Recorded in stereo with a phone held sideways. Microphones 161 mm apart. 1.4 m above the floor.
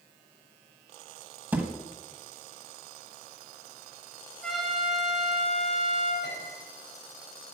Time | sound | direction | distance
1.5 | a thud | 10° right (ahead or behind) | 1.4 m
4.4 | a trumpet | centre (ahead or behind) | 3.5 m
6.2 | a piano | 85° left | 5 m